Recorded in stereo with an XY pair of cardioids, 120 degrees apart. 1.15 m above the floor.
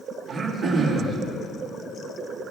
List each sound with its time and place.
0.3 s throat clearing: 55° right, 2.5 m